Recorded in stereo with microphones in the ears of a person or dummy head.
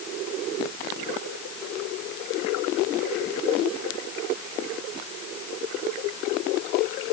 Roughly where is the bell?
I don't hear a bell.